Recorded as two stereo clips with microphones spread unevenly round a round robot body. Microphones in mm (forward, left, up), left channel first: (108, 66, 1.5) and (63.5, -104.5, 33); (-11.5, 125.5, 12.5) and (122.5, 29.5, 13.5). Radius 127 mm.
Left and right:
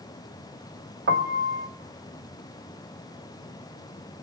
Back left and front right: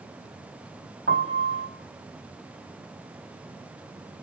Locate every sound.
1.1 s a piano: 80° right, 1.0 m